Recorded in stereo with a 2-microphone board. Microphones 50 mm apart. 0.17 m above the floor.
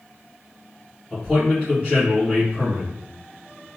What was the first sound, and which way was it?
A man speaking, 15° right (ahead or behind).